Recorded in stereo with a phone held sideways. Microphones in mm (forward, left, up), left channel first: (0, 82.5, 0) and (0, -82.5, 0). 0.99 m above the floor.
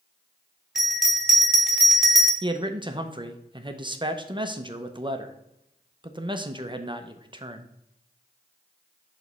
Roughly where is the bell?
Centre.